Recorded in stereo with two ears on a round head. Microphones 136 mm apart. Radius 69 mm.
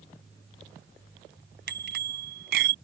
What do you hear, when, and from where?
1.7 s a bicycle bell: 75° right (ahead or behind); by 2.8 s 70° right (ahead or behind)